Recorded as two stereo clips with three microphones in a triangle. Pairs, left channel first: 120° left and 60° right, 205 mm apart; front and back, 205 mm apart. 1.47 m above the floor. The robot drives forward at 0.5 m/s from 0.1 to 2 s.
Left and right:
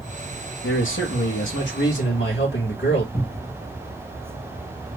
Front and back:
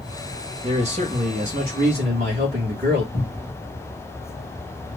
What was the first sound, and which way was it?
A man speaking, 120° left.